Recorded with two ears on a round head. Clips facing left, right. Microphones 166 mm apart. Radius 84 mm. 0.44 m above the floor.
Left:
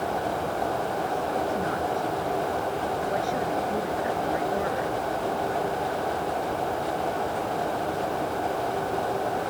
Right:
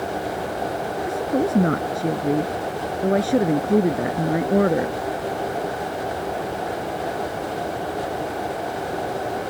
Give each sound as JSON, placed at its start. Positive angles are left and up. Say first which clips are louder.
{"t": 1.1, "sound": "a woman speaking", "louder": "right 5 dB", "side_deg": -60}